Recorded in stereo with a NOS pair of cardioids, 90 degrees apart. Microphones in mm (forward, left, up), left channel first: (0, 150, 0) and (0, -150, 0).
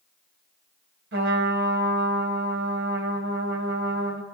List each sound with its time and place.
1.1 s a trumpet: 45° right, 2.5 m